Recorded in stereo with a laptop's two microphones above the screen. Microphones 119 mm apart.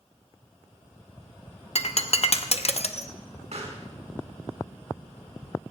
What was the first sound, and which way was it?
Breaking glass, 60° left (ahead or behind).